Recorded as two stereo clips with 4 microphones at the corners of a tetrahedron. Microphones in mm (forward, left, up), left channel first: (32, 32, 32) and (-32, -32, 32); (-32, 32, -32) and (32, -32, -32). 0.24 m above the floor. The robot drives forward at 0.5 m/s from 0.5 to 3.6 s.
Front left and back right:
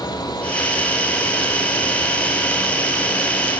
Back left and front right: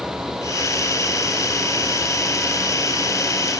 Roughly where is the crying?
I don't hear crying.